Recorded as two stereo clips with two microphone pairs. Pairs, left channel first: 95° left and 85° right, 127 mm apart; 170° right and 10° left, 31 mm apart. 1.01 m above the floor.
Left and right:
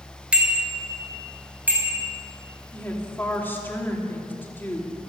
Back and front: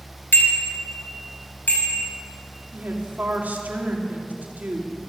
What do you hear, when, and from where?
0.3 s a bicycle bell: 165° right, 2.5 m; by 2.1 s 160° right, 5 m
2.7 s a woman speaking: 20° left, 2.5 m